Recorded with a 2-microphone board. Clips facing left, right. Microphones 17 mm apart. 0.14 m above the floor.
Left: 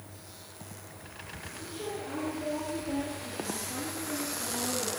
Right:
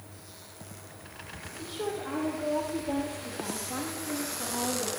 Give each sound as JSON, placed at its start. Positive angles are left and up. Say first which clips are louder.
{"t": 1.6, "sound": "a woman speaking", "louder": "right 4 dB", "side_deg": -70, "distance_m": 5.0}